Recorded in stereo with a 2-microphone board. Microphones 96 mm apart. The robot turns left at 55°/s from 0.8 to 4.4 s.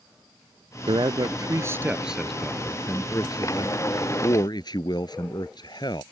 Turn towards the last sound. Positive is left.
turn(degrees=65)